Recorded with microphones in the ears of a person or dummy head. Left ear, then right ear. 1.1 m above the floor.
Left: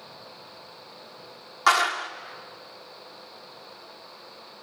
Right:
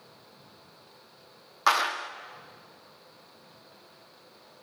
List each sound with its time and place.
1.7 s a clap: centre (ahead or behind), 0.9 m